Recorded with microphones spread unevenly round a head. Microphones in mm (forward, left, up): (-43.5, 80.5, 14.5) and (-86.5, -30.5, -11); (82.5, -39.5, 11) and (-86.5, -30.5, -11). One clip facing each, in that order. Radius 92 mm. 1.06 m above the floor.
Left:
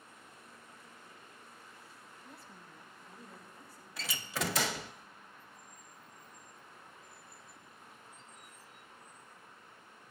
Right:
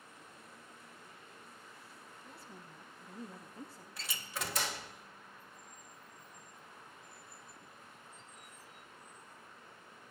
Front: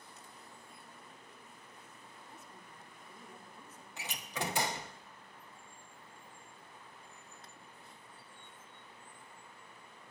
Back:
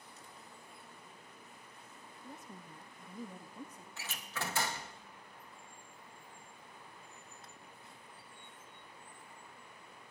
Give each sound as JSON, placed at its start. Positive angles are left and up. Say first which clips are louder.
{"t": 2.2, "sound": "a woman speaking", "louder": "right 1 dB, back 8 dB", "azimuth_deg": 160, "distance_m": 1.6}
{"t": 4.0, "sound": "a door slam", "louder": "left 6 dB, front 3 dB", "azimuth_deg": 70, "distance_m": 0.6}